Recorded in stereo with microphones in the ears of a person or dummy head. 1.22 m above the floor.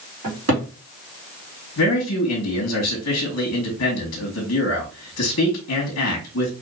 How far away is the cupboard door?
About 2.5 m.